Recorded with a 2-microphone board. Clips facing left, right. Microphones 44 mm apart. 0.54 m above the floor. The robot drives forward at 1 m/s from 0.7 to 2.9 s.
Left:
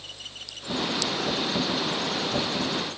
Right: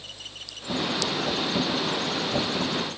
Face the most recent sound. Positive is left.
No sound to turn to.